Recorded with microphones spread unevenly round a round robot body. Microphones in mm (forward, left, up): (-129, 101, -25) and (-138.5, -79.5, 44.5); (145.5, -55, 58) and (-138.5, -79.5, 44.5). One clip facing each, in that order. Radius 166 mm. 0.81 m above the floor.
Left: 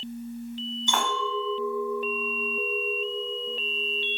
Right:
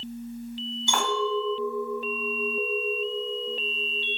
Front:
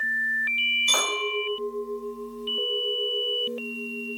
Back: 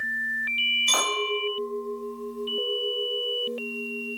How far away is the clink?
About 1.5 m.